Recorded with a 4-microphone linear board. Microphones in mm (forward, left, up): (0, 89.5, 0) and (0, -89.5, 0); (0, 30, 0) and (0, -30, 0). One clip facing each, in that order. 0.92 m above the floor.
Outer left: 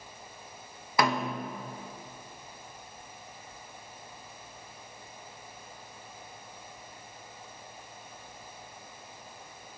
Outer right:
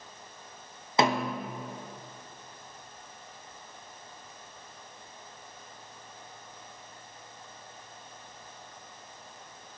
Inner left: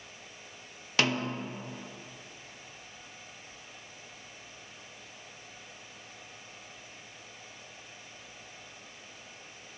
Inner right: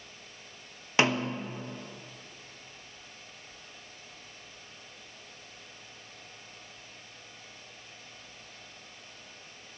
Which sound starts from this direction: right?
A snare drum, at 1.0 s.